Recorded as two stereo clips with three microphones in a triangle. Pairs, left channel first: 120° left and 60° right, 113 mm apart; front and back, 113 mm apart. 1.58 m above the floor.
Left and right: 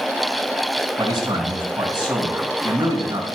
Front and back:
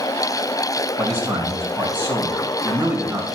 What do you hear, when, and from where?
1.0 s a man speaking: 115° right, 3 m